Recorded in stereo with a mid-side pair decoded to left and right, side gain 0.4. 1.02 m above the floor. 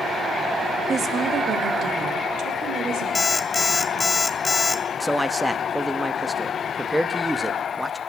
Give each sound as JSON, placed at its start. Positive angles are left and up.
{"t": 0.9, "sound": "a woman speaking", "azimuth_deg": -50, "distance_m": 1.6}
{"t": 3.1, "sound": "an alarm clock", "azimuth_deg": 20, "distance_m": 1.0}
{"t": 5.0, "sound": "a man speaking", "azimuth_deg": -10, "distance_m": 1.0}